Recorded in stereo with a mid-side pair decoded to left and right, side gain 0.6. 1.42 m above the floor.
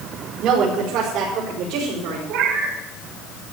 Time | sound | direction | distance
0.4 | a woman speaking | 65° right | 5 m
2.3 | a cat meowing | 70° right | 5.5 m